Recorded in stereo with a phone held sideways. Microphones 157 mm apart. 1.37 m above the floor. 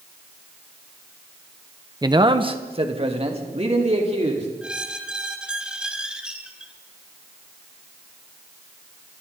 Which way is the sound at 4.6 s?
5° right (ahead or behind).